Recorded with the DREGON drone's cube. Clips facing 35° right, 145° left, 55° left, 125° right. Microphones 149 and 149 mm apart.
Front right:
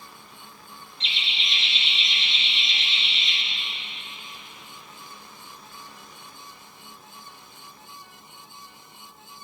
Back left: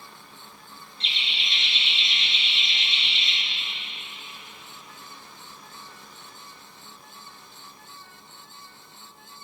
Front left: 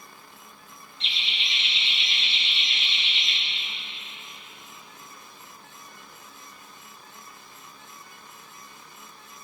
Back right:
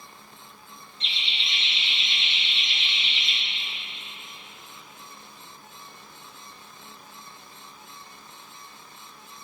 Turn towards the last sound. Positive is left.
turn(degrees=95)